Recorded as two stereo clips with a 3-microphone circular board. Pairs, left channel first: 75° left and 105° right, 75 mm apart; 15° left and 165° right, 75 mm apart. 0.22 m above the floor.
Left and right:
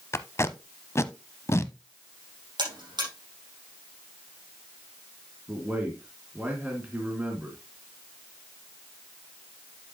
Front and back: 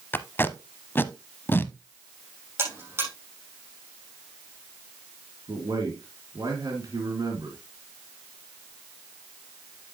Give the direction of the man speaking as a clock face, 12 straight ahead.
6 o'clock.